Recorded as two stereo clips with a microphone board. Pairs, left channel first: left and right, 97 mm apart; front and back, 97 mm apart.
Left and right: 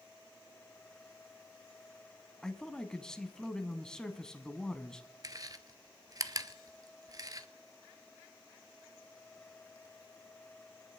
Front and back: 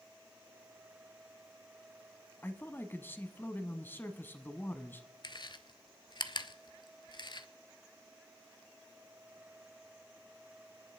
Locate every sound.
2.4 s a man speaking: 20° left, 1.1 m
5.2 s chewing: 40° right, 0.7 m